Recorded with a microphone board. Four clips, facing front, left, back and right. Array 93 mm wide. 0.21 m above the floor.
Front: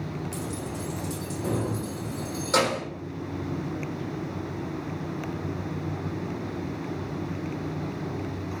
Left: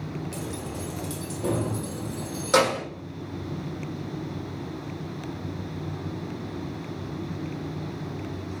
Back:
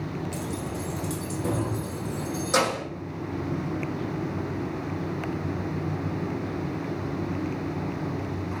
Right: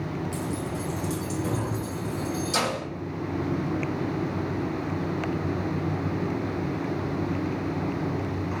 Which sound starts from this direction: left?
Keys jangling, at 0.3 s.